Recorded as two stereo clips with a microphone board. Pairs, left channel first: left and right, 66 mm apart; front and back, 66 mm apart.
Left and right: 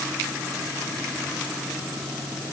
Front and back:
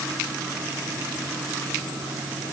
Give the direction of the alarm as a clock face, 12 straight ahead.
I don't hear an alarm.